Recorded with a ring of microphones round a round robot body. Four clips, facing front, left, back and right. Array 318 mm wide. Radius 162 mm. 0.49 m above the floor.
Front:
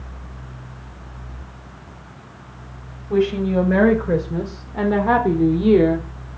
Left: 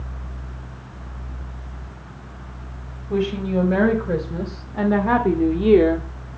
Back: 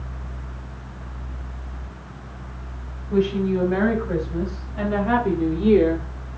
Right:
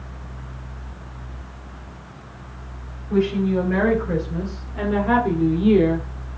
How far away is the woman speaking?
About 3 m.